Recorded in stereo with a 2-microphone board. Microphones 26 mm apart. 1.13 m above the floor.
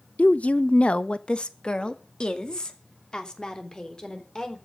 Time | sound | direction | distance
0.2 | a woman speaking | 75° left (ahead or behind) | 0.5 m